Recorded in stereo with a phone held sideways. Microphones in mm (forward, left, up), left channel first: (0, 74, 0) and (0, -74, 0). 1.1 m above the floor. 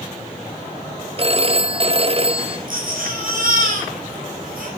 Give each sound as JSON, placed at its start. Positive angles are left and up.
{"t": 1.2, "sound": "a phone ringing", "side_deg": -40, "distance_m": 1.1}
{"t": 2.7, "sound": "a baby crying", "side_deg": -75, "distance_m": 6.0}